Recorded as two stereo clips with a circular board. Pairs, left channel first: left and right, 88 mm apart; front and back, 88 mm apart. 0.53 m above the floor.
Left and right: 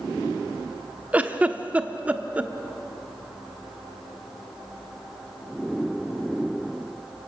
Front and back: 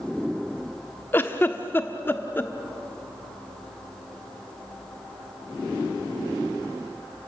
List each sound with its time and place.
1.1 s a giggle: 35° right, 1.1 m